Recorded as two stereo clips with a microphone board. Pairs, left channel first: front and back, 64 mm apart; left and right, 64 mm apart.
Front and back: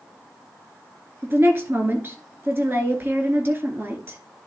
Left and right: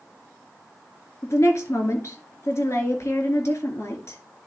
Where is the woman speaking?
130° left, 2 m.